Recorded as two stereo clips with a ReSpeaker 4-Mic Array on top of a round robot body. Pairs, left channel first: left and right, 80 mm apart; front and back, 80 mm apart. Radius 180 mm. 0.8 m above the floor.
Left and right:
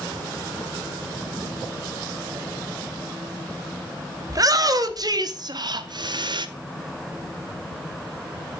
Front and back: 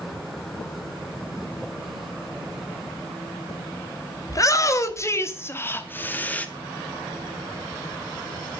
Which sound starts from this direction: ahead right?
A shout, at 4.3 s.